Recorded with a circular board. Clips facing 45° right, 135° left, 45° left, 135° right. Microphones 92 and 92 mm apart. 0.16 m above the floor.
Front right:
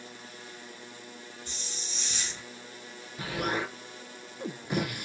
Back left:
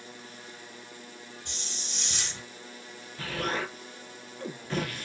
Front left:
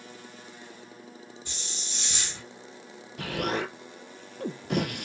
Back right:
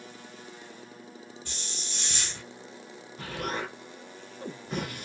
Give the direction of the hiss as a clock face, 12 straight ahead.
8 o'clock.